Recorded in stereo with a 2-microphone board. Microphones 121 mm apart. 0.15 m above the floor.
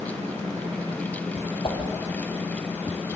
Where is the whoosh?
45° left (ahead or behind), 3.5 m.